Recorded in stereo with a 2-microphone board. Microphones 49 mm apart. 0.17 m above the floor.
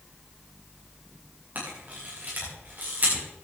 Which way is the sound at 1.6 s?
45° right (ahead or behind).